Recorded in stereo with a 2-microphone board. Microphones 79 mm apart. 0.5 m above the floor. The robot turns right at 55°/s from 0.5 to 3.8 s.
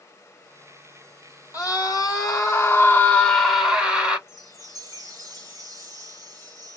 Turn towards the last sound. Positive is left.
turn(degrees=-45)  # may be behind; listen again after turning